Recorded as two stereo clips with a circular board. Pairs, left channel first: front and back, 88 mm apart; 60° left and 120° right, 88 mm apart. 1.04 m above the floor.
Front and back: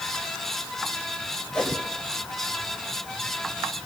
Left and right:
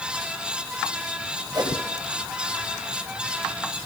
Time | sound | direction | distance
1.5 | a whoosh | 80° right | 5 m